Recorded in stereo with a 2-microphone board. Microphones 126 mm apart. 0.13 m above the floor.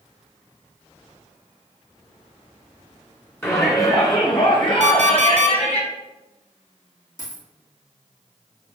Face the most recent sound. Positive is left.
turn(degrees=75)  # may be behind; listen again after turning